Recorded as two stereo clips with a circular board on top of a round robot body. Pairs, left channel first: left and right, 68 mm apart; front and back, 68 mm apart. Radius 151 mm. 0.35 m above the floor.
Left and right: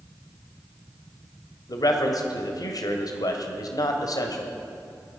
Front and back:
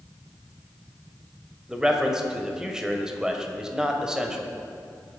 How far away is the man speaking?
About 1.9 m.